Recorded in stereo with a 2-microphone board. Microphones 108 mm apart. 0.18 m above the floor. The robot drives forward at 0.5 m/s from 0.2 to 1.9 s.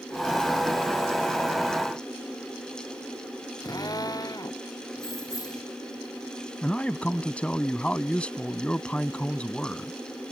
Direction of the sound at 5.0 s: 35° left (ahead or behind).